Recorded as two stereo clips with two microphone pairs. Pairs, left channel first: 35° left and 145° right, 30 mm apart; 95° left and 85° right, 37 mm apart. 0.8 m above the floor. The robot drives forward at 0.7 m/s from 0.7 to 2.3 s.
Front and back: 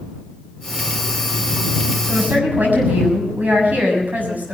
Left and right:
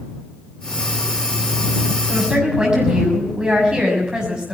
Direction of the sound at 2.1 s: 150° right.